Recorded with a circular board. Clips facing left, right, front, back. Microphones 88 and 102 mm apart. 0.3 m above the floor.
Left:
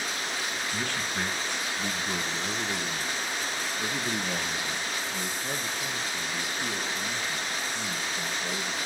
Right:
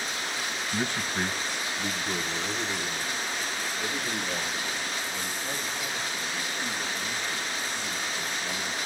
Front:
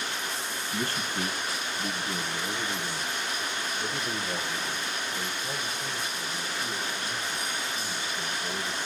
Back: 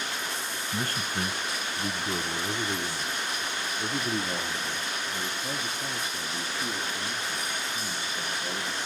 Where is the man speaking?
155° right, 1.4 m; by 8.8 s 140° left, 6.5 m.